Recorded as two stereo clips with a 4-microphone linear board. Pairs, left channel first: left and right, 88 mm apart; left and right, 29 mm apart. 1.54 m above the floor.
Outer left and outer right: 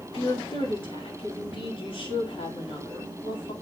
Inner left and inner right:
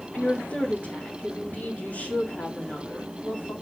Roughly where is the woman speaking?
Left.